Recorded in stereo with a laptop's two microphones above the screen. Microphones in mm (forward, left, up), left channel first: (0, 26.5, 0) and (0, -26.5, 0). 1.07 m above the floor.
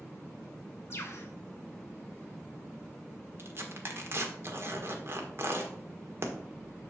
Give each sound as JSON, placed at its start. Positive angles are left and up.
{"t": 0.9, "sound": "a bird", "side_deg": 50, "distance_m": 1.7}
{"t": 3.4, "sound": "tearing paper", "side_deg": -45, "distance_m": 1.4}